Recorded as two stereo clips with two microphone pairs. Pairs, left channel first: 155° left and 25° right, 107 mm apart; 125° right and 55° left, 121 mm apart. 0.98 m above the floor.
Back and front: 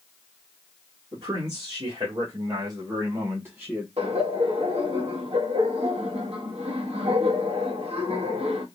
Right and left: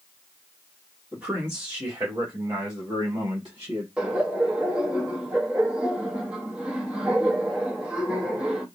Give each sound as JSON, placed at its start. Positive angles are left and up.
{"t": 1.1, "sound": "a man speaking", "azimuth_deg": -20, "distance_m": 1.7}
{"t": 4.0, "sound": "laughter", "azimuth_deg": -25, "distance_m": 1.2}